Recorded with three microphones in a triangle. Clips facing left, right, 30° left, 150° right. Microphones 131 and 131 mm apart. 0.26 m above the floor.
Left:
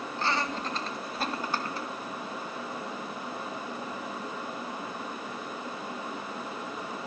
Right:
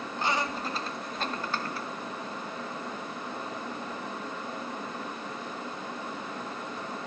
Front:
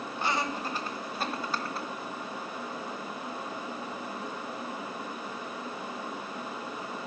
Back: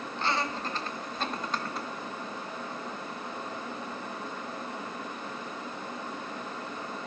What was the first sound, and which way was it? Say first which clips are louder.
Laughter: right 1 dB, even; 35° right.